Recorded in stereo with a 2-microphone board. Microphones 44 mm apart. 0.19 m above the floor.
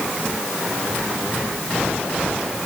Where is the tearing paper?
I don't hear tearing paper.